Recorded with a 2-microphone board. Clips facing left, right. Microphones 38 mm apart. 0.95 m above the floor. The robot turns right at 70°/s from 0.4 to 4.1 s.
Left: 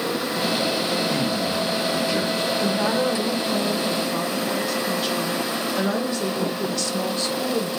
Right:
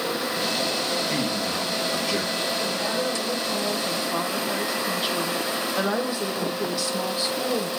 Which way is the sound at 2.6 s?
95° left.